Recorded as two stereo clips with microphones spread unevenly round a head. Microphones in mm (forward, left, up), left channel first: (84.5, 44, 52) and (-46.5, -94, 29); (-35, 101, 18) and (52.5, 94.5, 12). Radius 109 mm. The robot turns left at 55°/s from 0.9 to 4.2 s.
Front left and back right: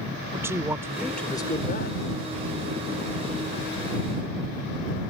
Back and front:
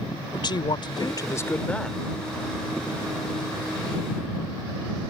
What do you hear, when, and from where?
0.3 s a man speaking: 145° left; by 2.0 s 85° left